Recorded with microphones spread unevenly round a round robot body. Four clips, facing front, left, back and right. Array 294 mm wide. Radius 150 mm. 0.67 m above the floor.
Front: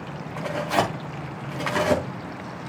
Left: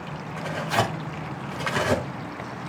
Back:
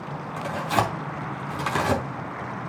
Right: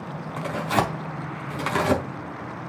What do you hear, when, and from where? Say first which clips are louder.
0.4 s tearing paper: right 1 dB, front 1 dB; 105° right, 4.5 m